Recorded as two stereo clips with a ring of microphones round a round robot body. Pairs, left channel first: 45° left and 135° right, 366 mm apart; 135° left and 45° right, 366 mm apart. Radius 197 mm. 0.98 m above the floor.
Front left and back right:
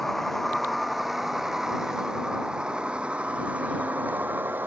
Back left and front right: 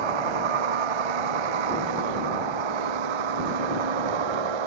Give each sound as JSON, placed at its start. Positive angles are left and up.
{"t": 0.0, "sound": "a vehicle", "azimuth_deg": -45}